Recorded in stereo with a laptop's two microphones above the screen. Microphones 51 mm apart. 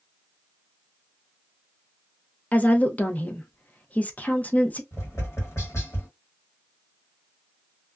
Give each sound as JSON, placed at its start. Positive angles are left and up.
{"t": 2.5, "sound": "a woman speaking", "side_deg": 30, "distance_m": 0.6}
{"t": 4.9, "sound": "tapping", "side_deg": 60, "distance_m": 1.5}